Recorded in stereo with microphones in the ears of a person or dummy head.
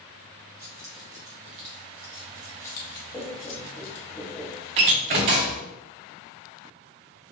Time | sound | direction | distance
0.6 | keys jangling | 45° right (ahead or behind) | 1.2 m
3.1 | laughter | 5° left (ahead or behind) | 0.6 m
4.8 | a door slam | 35° right (ahead or behind) | 0.6 m